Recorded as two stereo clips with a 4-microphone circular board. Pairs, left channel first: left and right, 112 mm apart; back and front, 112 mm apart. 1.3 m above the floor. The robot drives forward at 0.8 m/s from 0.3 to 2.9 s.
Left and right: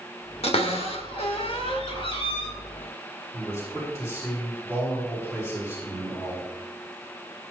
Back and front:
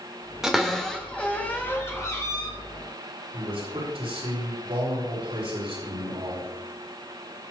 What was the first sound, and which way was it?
A cupboard door, 85° left.